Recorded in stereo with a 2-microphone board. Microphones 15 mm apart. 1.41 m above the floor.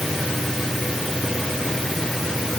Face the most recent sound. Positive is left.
No sound to turn to.